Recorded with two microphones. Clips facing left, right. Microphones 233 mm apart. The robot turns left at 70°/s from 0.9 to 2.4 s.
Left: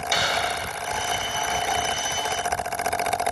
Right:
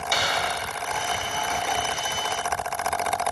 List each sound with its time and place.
0.1 s a dropped coin: 5° left (ahead or behind), 1.6 m